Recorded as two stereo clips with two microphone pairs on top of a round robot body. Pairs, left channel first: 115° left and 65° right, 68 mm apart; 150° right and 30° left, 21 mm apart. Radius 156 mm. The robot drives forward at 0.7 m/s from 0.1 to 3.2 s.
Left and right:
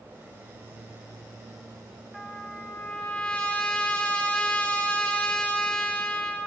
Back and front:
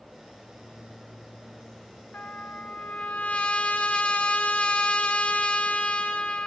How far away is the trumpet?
About 0.8 m.